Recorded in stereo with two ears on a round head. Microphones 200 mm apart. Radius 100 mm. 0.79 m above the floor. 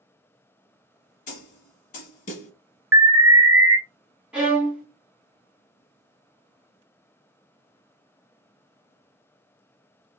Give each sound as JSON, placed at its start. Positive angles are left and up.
{"t": 1.3, "sound": "a snare drum", "side_deg": 40, "distance_m": 1.0}
{"t": 2.9, "sound": "an alarm", "side_deg": -10, "distance_m": 0.5}
{"t": 4.3, "sound": "a violin", "side_deg": -5, "distance_m": 1.5}